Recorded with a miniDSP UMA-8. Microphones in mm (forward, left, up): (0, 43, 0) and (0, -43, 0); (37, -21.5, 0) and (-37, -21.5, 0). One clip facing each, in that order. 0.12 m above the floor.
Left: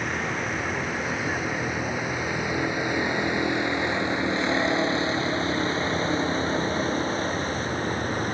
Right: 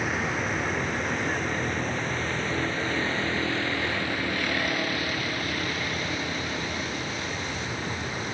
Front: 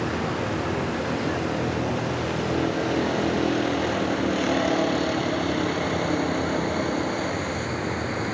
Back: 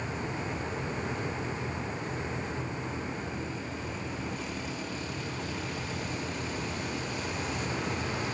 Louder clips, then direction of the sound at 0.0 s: Even, front 9 dB; straight ahead.